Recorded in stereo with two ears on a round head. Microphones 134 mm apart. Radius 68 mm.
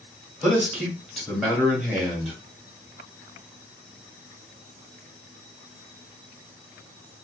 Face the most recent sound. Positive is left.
turn(degrees=0)  # may be behind; listen again after turning